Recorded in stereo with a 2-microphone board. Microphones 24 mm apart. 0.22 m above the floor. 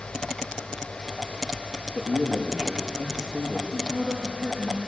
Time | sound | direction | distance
1.9 | a man speaking | 30° right (ahead or behind) | 6 m
3.7 | a woman speaking | 25° right (ahead or behind) | 8.5 m